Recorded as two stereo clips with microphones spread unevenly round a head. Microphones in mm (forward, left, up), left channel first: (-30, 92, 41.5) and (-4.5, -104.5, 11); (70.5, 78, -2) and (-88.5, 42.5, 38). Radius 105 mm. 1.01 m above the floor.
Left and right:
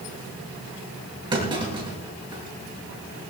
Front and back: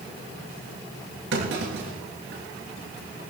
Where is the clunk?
150° right, 7 m.